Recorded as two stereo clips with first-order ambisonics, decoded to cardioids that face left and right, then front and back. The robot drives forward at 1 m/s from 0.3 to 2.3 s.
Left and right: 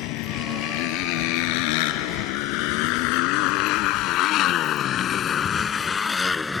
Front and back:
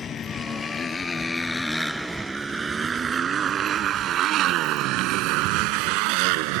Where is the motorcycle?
65° left; by 6.6 s 170° left.